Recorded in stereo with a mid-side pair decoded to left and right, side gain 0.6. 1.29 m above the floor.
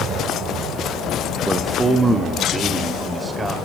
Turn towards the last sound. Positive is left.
turn(degrees=-15)